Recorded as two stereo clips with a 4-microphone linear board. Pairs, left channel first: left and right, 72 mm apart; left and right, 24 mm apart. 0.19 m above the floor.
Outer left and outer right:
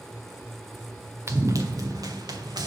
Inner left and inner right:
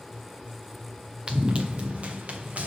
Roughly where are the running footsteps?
Right.